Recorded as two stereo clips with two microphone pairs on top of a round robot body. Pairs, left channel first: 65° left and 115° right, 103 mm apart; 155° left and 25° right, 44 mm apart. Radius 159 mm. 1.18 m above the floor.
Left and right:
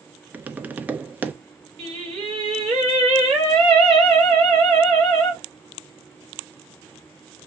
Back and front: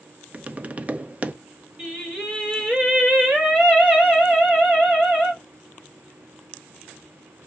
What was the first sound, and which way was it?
Tapping, 60° right.